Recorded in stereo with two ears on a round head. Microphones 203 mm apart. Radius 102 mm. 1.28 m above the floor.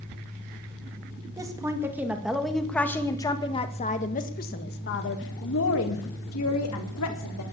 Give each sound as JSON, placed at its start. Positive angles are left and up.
{"t": 1.4, "sound": "a woman speaking", "side_deg": -15, "distance_m": 2.5}